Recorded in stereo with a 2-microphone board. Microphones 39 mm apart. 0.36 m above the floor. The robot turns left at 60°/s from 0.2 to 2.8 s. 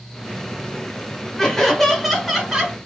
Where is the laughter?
20° left (ahead or behind), 1.2 m; by 2.8 s 15° right (ahead or behind), 1.2 m.